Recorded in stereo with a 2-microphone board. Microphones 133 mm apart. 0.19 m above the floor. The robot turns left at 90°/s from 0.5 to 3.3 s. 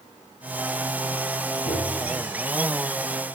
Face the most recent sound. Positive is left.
turn(degrees=-20)